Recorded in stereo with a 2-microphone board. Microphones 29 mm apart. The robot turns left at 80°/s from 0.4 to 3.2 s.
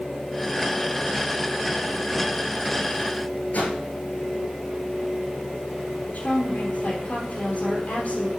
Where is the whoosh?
70° left (ahead or behind), 6 m.